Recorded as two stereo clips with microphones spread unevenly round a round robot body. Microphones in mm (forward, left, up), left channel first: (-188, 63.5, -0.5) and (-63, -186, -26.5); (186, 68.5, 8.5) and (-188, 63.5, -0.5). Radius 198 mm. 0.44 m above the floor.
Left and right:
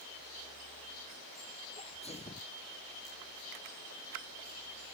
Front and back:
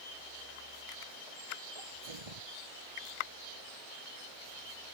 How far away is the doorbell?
I don't hear a doorbell.